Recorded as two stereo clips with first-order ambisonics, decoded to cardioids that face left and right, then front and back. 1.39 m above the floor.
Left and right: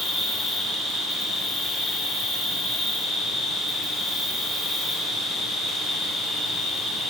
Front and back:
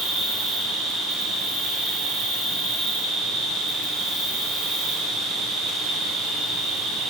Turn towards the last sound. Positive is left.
turn(degrees=180)